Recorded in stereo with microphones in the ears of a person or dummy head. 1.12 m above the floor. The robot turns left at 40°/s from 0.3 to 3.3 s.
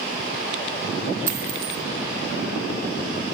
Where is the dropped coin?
20° right (ahead or behind), 0.7 m; by 1.8 s 35° right (ahead or behind), 0.7 m.